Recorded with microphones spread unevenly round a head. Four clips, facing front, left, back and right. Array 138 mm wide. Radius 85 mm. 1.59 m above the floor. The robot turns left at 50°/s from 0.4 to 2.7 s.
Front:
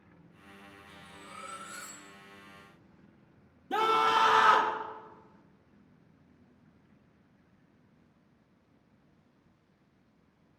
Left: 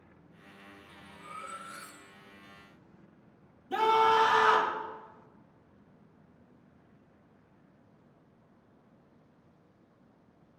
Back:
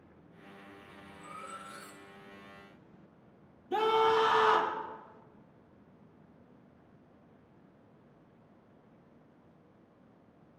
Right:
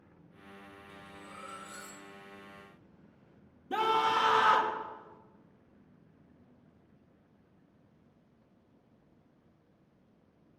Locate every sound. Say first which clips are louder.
0.9 s cutlery clinking: left 5 dB, back 1 dB; 95° left, 3 m; by 2.1 s 35° left, 3 m
3.7 s a scream: left 4 dB, even; 10° right, 3.5 m